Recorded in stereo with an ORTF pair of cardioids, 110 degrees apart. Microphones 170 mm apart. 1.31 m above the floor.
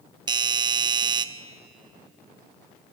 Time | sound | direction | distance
0.3 | a doorbell | 25° right | 1.0 m